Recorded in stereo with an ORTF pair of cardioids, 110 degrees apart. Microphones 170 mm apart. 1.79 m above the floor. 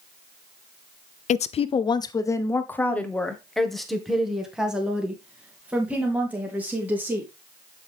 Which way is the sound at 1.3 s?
50° left.